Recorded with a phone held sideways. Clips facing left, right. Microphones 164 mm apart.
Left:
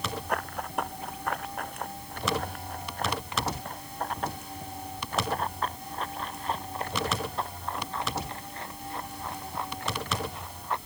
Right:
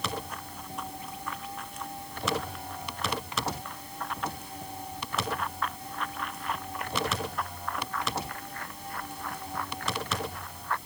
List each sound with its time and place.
0.3 s running footsteps: 70° left (ahead or behind); by 10.8 s 20° left (ahead or behind)